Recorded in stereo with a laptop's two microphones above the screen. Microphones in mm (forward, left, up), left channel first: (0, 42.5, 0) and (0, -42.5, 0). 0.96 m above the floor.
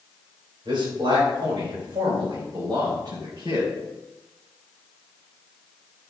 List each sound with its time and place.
0.7 s a man speaking: 70° right (ahead or behind), 3.5 m; by 3.7 s 45° right (ahead or behind), 3.5 m